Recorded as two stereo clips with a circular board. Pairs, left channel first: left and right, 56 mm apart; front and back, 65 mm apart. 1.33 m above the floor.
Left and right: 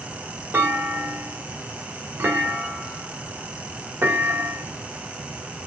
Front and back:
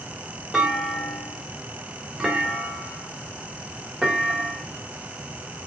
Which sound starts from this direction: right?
A clunk, at 0.5 s.